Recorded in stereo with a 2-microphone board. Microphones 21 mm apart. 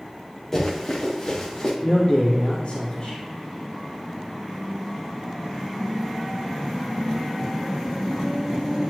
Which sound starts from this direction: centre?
Running footsteps, at 0.5 s.